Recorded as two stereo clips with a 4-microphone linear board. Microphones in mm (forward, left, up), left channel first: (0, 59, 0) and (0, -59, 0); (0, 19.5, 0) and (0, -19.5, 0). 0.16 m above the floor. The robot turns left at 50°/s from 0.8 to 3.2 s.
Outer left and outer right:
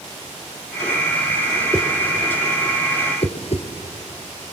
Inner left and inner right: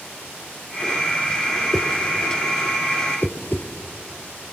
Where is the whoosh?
10° right (ahead or behind), 2 m; by 3.7 s 55° left (ahead or behind), 2 m.